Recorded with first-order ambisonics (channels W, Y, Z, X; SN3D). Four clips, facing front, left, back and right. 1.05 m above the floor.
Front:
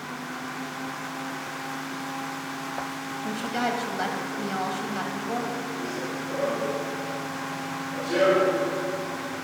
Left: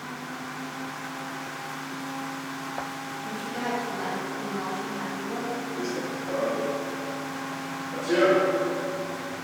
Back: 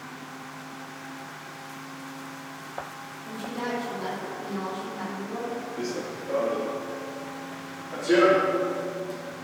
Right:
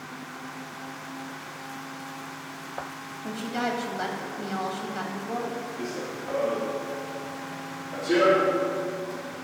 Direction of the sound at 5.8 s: 145° left.